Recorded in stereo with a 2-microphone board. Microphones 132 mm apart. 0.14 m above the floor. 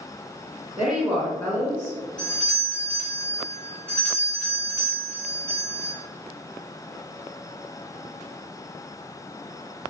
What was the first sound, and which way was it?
A woman speaking, 10° right (ahead or behind).